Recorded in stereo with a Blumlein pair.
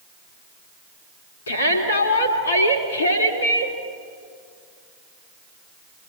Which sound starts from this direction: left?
A shout, at 1.5 s.